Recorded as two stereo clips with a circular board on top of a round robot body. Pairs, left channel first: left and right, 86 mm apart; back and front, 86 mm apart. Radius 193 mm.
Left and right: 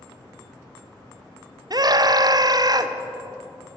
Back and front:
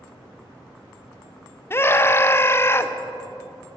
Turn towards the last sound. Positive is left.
turn(degrees=-120)